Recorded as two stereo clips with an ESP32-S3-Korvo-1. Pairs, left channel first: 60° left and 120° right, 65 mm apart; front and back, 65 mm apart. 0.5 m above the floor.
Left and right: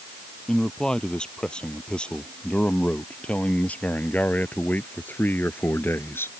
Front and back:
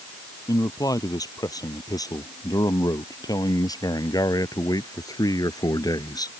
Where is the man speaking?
20° right; by 6.4 s 10° left.